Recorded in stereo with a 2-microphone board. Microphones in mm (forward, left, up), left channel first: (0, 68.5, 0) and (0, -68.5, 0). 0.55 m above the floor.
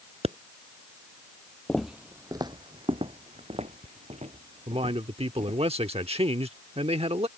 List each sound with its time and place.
0.2 s a pop: 50° right (ahead or behind)
1.7 s footsteps: 10° left (ahead or behind); by 5.6 s 60° right (ahead or behind)
4.7 s a man speaking: 45° right (ahead or behind)